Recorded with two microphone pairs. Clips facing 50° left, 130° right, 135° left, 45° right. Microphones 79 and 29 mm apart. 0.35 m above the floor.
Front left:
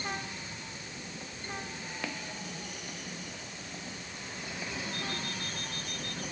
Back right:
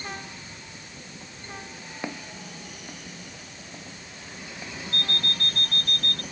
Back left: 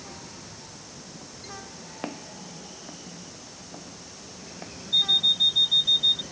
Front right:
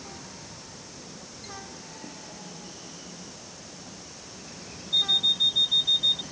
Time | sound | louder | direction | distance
2.0 | footsteps | back right 5 dB, back left 5 dB | 165° left | ?
4.9 | an alarm clock | back right 5 dB, back left 2 dB | 140° right | ?